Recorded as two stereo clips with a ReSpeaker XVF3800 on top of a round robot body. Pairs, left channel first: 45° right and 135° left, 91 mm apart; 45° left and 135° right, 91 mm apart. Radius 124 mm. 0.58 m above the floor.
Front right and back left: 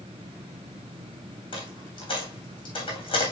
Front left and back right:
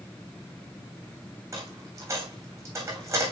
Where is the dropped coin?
75° right, 3 m.